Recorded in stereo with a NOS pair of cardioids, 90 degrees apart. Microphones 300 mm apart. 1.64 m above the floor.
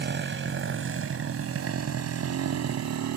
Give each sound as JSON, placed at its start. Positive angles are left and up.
{"t": 0.0, "sound": "a motorcycle", "azimuth_deg": -40}